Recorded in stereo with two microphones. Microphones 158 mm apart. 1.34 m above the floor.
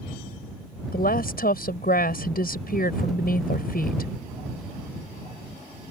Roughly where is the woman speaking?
Left.